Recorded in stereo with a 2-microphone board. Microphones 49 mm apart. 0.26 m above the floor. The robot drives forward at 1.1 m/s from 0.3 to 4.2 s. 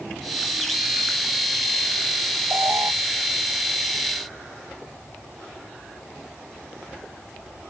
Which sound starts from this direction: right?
An alarm, at 2.5 s.